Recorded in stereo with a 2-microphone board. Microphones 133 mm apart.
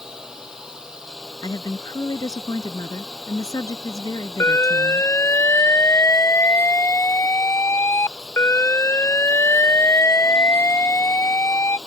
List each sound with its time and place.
0.0 s a drone: 5° right (ahead or behind)
1.4 s a woman speaking: 30° left (ahead or behind)
4.4 s an alarm: 20° left (ahead or behind)